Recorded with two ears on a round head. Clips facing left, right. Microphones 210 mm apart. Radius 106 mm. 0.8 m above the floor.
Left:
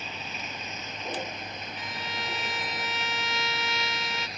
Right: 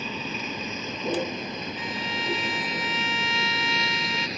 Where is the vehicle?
65° right (ahead or behind); by 4.4 s 60° right (ahead or behind).